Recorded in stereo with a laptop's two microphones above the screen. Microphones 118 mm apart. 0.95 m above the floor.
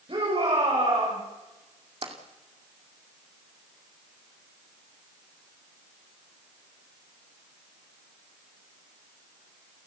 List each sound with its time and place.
0.1 s a shout: 55° right (ahead or behind), 5.5 m
2.0 s tapping: 55° right (ahead or behind), 2.5 m